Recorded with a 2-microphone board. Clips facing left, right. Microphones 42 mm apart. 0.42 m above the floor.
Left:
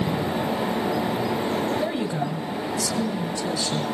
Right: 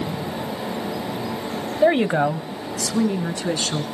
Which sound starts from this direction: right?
A woman speaking, at 1.8 s.